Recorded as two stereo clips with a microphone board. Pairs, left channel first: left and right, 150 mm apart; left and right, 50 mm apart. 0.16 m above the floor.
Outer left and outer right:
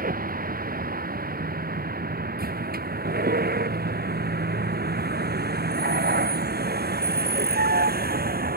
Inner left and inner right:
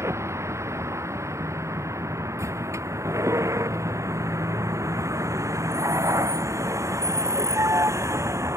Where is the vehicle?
65° right (ahead or behind); by 8.6 s 75° right (ahead or behind).